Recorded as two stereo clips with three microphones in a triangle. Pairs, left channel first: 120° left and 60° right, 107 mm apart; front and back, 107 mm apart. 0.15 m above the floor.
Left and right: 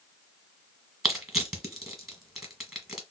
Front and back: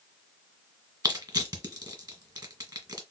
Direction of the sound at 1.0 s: 145° right.